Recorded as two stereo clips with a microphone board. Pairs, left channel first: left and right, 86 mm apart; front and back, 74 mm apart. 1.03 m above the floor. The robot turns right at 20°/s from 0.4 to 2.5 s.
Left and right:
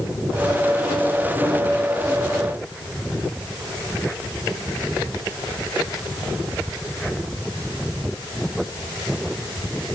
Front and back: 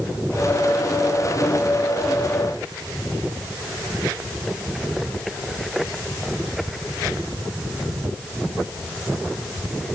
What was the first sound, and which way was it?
Only background noise.